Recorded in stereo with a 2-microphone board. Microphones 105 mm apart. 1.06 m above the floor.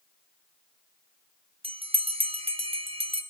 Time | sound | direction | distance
1.6 | a bell | 70° right (ahead or behind) | 1.2 m